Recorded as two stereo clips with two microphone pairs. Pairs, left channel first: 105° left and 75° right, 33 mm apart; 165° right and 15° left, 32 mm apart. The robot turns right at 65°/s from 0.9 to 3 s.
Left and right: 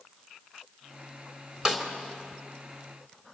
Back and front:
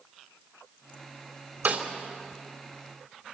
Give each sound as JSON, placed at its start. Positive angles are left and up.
{"t": 1.6, "sound": "a snare drum", "azimuth_deg": -5, "distance_m": 3.0}